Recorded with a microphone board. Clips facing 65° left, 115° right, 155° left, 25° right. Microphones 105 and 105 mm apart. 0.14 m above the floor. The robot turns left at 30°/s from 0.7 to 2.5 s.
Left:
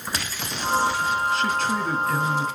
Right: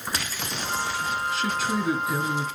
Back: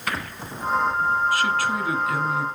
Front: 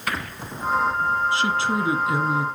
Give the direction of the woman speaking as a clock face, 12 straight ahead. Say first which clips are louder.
Left 3 dB, even; 1 o'clock.